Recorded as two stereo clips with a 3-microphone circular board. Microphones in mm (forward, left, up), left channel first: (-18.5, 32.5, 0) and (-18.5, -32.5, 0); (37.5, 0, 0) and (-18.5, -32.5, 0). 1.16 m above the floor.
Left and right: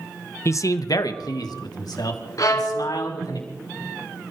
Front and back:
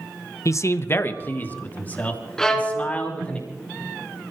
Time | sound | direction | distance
0.5 | a man speaking | 55° left | 0.8 m
2.4 | a violin | 115° left | 2.5 m